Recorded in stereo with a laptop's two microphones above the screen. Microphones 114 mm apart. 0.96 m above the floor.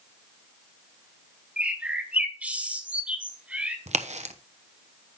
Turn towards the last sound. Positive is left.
turn(degrees=-70)  # may be behind; listen again after turning